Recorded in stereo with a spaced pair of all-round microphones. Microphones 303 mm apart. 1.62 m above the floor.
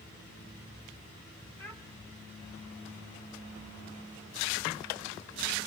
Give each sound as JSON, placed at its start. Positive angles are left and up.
{"t": 1.6, "sound": "a child speaking", "side_deg": 5, "distance_m": 2.5}